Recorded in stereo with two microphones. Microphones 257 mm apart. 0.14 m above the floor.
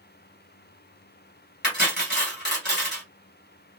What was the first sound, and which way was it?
Cutlery clinking, 40° left (ahead or behind).